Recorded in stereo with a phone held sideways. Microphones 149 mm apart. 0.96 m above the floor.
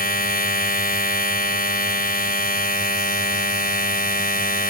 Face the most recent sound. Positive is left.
turn(degrees=85)